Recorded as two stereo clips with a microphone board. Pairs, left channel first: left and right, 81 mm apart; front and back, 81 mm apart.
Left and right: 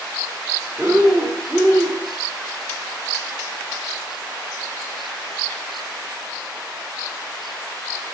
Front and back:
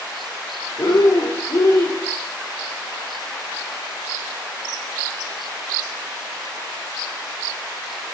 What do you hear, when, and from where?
0.8 s breathing: 25° right, 3 m